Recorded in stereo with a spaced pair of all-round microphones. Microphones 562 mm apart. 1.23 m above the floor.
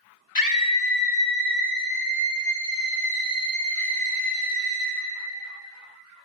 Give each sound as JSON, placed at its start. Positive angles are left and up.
{"t": 0.3, "sound": "a scream", "side_deg": 35, "distance_m": 1.2}